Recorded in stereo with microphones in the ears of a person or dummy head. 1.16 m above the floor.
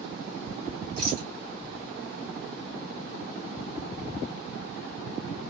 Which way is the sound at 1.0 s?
60° right (ahead or behind).